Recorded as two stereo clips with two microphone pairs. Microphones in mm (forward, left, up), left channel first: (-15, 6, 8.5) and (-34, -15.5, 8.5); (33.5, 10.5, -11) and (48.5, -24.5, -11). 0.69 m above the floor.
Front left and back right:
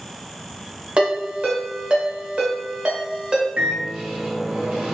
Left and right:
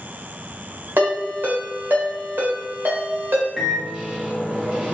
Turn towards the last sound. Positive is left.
turn(degrees=-135)